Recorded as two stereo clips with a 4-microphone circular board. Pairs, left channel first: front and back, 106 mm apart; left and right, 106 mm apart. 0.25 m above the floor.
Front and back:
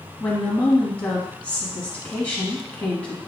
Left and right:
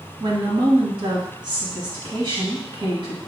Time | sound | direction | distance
0.2 | a woman speaking | 70° right | 1.7 m